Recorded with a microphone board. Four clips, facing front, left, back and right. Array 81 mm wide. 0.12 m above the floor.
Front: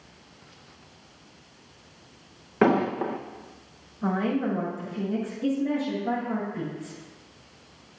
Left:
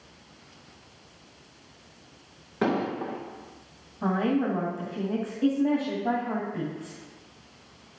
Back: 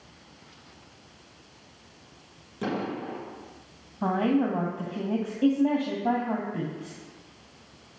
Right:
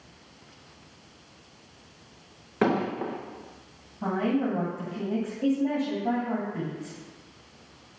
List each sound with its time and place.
2.6 s an explosion: 15° right, 1.6 m
4.0 s a woman speaking: straight behind, 3 m